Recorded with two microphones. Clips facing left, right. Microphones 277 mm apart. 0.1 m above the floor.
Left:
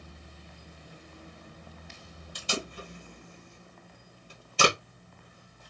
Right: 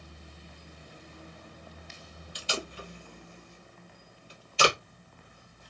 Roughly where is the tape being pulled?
Left.